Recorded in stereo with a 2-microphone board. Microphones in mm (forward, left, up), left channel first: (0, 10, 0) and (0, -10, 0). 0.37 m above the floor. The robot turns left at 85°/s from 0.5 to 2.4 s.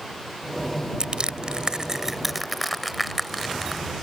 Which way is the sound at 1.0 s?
50° right (ahead or behind).